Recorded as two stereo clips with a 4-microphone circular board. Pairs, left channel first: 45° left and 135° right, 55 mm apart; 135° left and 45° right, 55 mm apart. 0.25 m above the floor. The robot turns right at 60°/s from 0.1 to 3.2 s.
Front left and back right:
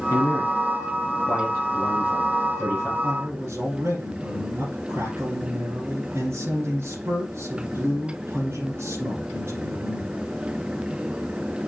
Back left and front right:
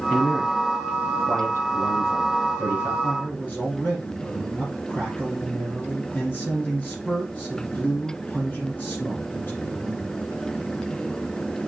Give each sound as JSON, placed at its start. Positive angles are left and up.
{"t": 0.1, "sound": "a man speaking", "azimuth_deg": 40, "distance_m": 5.5}
{"t": 3.0, "sound": "a man speaking", "azimuth_deg": -175, "distance_m": 5.5}